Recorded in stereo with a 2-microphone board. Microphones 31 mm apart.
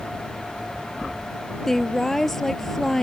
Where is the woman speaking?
10° left (ahead or behind).